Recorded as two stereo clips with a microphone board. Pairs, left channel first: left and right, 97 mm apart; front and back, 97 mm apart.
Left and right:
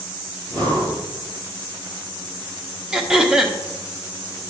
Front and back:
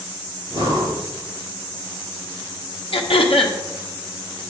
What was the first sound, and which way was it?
Breathing, 135° right.